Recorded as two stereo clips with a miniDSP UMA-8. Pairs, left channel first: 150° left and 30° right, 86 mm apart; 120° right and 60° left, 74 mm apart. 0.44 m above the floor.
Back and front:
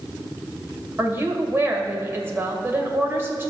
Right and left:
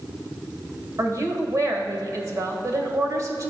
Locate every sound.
1.0 s a woman speaking: 25° left, 1.6 m